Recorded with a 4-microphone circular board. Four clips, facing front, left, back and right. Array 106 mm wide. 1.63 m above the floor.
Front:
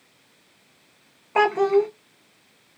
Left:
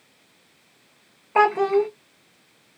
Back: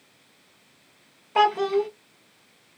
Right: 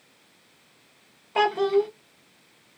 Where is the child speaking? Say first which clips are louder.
Left 3 dB, front 2 dB; 60° left, 0.8 m.